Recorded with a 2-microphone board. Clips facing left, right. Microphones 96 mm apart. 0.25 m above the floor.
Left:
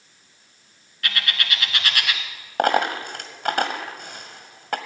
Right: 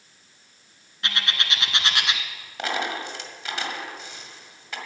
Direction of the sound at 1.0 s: 25° right (ahead or behind).